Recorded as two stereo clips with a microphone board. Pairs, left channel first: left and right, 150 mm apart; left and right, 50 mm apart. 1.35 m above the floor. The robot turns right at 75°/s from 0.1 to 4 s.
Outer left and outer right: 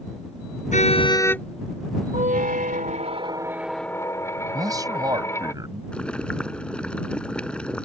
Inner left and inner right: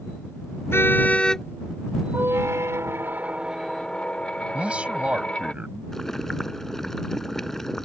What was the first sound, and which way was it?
A car horn, 120° left.